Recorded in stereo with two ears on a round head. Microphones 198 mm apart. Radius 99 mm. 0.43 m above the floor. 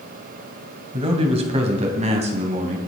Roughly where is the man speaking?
Right.